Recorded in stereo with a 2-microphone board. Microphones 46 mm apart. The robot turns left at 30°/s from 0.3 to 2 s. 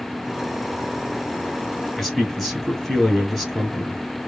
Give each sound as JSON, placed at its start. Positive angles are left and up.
{"t": 2.0, "sound": "a man speaking", "side_deg": 0, "distance_m": 1.5}